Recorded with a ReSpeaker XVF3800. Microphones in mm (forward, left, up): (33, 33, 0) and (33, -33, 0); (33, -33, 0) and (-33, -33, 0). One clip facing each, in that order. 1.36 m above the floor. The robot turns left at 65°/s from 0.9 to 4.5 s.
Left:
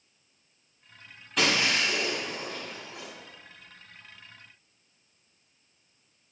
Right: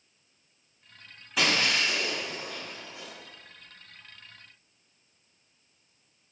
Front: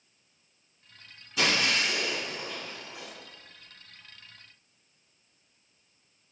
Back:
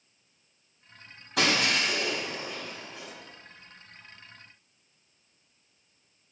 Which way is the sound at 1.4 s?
175° right.